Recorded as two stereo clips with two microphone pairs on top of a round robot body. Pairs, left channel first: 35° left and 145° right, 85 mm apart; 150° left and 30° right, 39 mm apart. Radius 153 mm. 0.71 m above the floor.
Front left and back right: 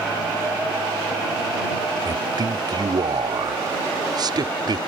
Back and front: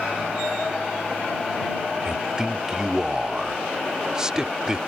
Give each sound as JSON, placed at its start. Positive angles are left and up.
{"t": 2.0, "sound": "a man speaking", "azimuth_deg": -105}